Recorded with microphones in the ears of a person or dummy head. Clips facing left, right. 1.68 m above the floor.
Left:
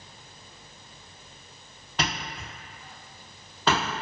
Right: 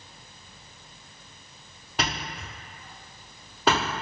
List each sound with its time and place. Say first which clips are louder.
2.0 s a thud: right 1 dB; 10° right (ahead or behind), 1.3 m